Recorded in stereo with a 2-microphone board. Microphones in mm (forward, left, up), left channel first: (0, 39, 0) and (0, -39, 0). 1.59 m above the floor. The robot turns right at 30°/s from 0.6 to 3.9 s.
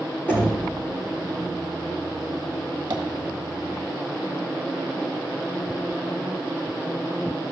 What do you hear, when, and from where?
0.3 s knocking: 20° left (ahead or behind), 3 m
2.9 s tapping: 60° right (ahead or behind), 1.5 m